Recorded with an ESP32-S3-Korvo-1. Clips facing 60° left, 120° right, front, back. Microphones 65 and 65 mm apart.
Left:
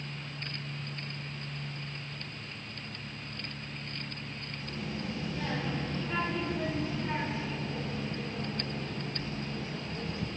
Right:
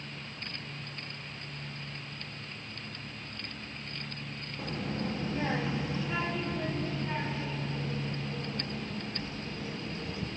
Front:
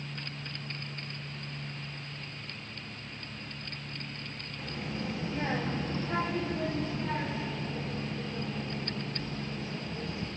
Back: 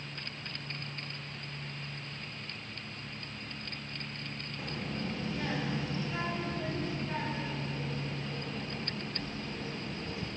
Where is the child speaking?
95° right, 1.0 m; by 10.3 s 10° left, 3 m.